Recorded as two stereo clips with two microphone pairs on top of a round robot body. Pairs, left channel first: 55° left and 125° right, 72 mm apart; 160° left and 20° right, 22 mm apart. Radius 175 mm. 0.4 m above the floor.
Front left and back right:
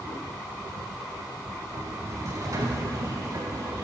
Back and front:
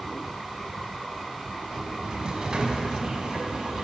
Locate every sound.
1.7 s a sliding door: 80° right, 0.8 m